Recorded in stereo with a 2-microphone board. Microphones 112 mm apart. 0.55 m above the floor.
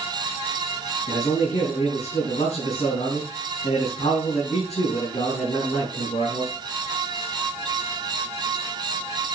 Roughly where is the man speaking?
Left.